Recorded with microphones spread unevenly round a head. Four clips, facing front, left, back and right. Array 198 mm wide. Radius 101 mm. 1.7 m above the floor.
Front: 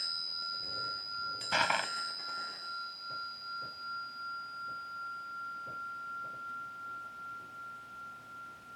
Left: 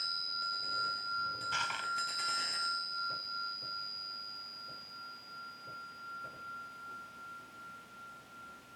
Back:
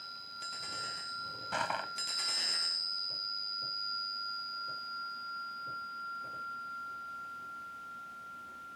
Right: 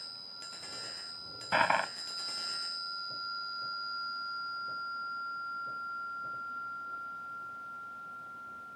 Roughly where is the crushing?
Right.